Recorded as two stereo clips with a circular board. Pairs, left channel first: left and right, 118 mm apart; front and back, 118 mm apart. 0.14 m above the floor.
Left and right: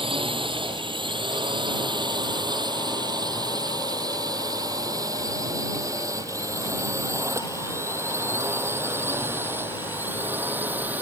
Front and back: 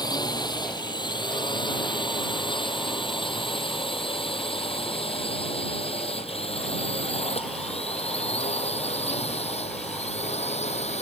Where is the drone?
50° right; by 11.0 s 15° right.